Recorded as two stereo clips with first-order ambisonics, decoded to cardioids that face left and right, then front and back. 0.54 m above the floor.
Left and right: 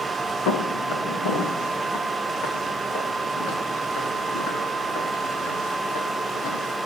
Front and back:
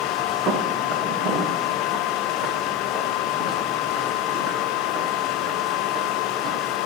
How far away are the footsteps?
About 3.5 m.